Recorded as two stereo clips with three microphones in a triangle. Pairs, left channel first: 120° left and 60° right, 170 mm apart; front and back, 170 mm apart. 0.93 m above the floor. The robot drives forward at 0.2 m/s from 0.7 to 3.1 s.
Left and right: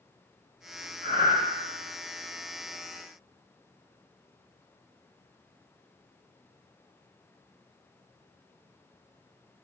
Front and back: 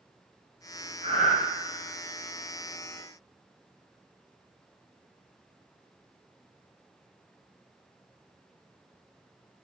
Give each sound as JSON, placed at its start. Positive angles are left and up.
{"t": 1.0, "sound": "breathing", "azimuth_deg": 140, "distance_m": 1.4}